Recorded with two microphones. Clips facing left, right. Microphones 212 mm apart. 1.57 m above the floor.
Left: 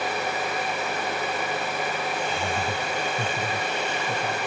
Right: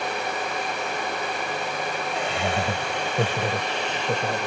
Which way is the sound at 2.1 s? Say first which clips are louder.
Right 2 dB; 85° right.